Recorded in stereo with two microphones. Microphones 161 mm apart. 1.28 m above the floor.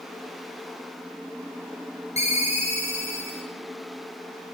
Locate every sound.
2.2 s a ringtone: 45° left (ahead or behind), 0.6 m